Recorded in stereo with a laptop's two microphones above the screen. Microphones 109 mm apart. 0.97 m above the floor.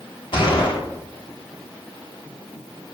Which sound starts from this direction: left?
A gunshot, at 0.3 s.